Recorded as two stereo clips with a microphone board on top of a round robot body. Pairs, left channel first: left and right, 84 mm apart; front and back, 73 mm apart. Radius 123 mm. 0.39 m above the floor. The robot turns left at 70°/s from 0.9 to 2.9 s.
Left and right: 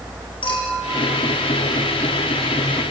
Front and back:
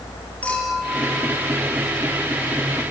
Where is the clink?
75° left, 6.5 m; by 1.5 s 30° left, 6.5 m.